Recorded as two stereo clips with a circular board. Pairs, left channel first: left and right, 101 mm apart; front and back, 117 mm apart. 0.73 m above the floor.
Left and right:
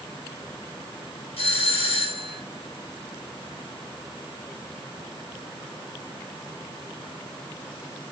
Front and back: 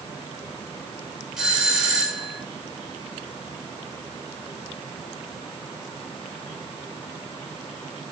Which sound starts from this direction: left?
A doorbell, at 1.4 s.